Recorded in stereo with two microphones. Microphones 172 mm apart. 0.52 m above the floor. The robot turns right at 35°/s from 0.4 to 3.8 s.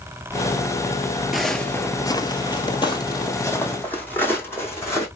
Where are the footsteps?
Centre (ahead or behind), 0.7 m; by 5.1 s 15° left (ahead or behind), 2 m.